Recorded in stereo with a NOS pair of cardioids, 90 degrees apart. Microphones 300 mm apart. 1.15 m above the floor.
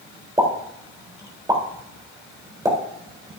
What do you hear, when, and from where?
0.4 s a pop: 10° right, 3.5 m